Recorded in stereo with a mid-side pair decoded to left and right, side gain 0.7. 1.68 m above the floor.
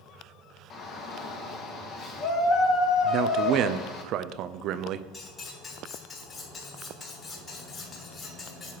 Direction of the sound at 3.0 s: 55° right.